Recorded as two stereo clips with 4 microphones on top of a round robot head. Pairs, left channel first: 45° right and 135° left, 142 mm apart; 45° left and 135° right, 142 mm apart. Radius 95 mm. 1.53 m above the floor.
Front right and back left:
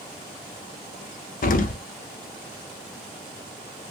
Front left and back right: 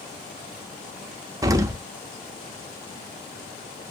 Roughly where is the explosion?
Right.